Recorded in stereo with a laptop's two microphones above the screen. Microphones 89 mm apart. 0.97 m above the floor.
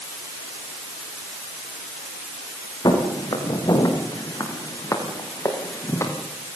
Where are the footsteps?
50° left (ahead or behind), 7 m; by 6.1 s 35° left (ahead or behind), 6.5 m.